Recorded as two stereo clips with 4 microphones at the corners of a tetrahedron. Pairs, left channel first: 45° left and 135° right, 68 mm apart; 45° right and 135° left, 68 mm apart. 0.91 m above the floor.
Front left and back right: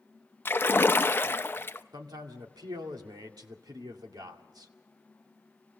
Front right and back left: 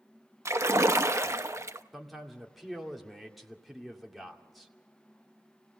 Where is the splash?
95° left, 0.7 m.